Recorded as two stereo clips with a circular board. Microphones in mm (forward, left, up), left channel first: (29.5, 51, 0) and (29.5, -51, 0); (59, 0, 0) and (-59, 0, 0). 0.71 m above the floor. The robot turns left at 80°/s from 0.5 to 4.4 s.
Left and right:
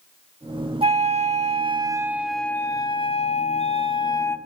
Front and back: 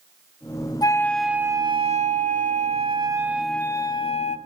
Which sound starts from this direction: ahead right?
A flute, at 0.8 s.